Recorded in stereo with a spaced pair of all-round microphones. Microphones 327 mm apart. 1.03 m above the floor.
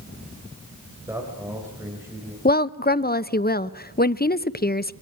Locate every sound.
1.1 s a man speaking: 10° right (ahead or behind), 5 m; by 2.4 s 5° right (ahead or behind), 6 m
2.5 s a woman speaking: 30° left (ahead or behind), 0.7 m